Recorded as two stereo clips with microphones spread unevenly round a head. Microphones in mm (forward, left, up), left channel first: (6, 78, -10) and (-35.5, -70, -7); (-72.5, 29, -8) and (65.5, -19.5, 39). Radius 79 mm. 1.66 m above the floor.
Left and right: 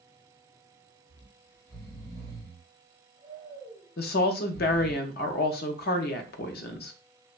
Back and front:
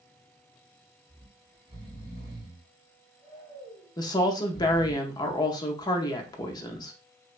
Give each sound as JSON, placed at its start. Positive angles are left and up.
{"t": 1.1, "sound": "snoring", "azimuth_deg": -20, "distance_m": 2.0}
{"t": 4.0, "sound": "a woman speaking", "azimuth_deg": 100, "distance_m": 0.5}